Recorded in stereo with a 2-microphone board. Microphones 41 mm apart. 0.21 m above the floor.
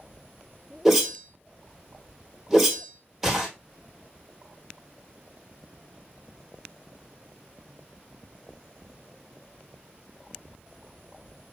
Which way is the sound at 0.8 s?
5° right (ahead or behind).